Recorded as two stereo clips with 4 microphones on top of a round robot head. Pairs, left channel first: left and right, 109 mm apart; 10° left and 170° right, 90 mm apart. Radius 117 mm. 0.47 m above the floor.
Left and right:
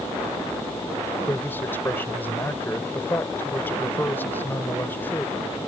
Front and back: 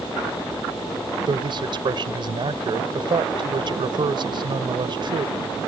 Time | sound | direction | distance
1.3 | a man speaking | 160° left | ?